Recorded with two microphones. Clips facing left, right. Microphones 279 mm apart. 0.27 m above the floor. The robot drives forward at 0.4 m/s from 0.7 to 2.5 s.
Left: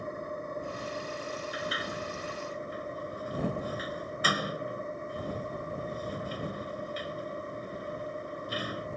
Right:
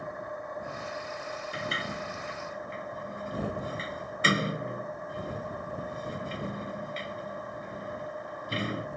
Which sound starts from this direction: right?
A sliding door, at 1.5 s.